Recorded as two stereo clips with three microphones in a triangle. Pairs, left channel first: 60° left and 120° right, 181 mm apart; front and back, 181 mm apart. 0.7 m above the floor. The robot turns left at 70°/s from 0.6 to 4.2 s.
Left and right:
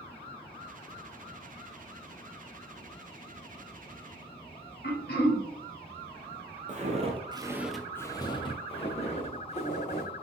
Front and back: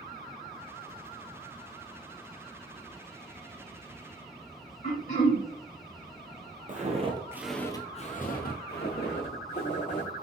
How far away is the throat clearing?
About 1.5 m.